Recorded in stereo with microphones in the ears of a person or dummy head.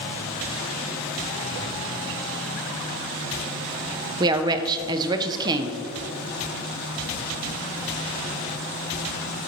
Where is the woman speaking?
25° right (ahead or behind), 0.5 m.